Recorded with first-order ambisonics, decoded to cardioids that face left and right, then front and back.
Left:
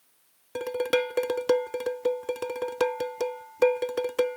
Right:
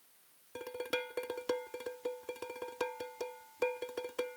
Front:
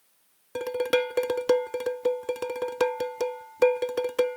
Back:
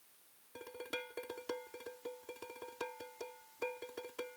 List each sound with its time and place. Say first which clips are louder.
0.6 s dishes clattering: left 12 dB, front 20 dB; 35° left